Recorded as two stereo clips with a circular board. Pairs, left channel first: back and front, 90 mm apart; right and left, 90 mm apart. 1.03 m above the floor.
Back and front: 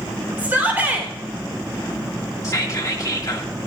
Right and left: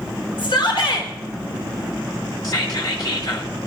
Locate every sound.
0.4 s a shout: 70° right, 3 m
2.4 s whispering: 130° right, 1.8 m